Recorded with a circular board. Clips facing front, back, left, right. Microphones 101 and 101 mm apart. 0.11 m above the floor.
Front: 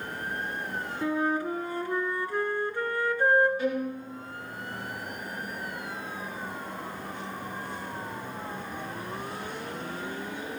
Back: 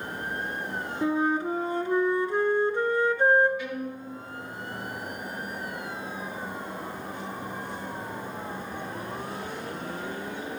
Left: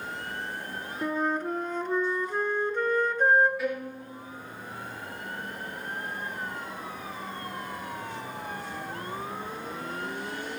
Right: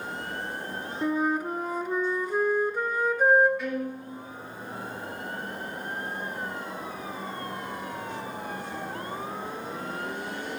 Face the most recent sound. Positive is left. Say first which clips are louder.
# front 5 dB, right 1 dB
turn(degrees=5)